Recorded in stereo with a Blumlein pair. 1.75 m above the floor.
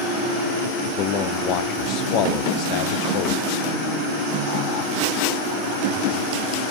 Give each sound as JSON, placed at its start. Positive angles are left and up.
{"t": 1.0, "sound": "a man speaking", "azimuth_deg": 40, "distance_m": 0.8}